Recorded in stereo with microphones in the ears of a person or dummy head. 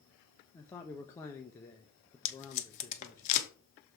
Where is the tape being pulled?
40° left (ahead or behind), 1.2 m.